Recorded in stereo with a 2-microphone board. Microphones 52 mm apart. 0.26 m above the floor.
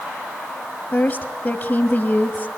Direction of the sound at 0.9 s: 35° left (ahead or behind).